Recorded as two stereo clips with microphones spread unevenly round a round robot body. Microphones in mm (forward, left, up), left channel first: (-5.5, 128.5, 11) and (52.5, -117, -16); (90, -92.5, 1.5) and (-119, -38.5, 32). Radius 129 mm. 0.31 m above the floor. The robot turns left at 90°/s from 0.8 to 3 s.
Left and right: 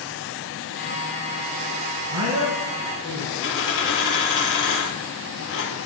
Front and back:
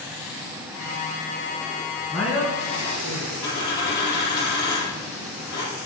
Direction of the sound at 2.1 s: 95° right.